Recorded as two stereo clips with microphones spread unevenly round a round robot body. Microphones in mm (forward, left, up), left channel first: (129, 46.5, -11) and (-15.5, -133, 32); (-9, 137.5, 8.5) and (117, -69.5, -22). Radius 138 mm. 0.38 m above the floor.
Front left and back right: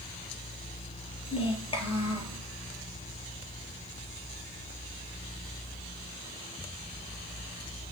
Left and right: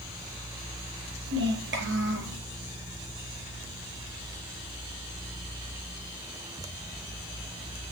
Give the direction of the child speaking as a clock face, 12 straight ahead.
1 o'clock.